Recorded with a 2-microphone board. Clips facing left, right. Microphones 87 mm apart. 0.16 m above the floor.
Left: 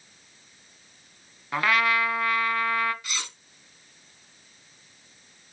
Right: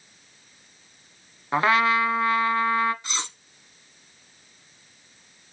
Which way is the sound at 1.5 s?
25° right (ahead or behind).